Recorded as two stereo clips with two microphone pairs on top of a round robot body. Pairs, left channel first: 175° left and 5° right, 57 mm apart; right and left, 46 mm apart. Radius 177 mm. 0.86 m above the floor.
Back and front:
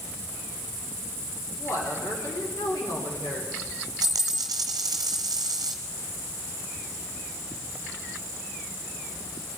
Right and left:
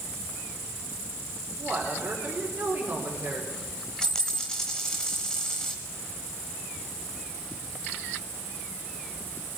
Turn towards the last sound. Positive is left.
turn(degrees=0)